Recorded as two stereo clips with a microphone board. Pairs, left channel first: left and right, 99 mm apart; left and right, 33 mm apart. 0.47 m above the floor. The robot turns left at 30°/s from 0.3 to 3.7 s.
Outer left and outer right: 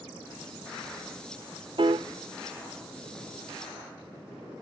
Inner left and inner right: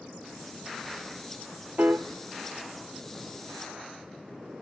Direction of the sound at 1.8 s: 55° right (ahead or behind).